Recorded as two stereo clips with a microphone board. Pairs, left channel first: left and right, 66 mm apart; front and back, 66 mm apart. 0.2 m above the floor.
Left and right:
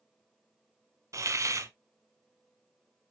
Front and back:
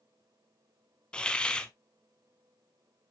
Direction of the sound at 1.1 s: 75° right.